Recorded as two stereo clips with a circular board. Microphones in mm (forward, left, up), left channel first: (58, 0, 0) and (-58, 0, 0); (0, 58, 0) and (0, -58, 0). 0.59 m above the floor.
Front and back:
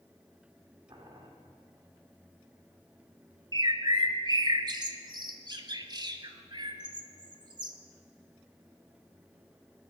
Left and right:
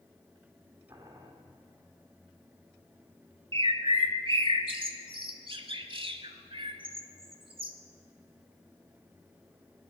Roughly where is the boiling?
Behind right.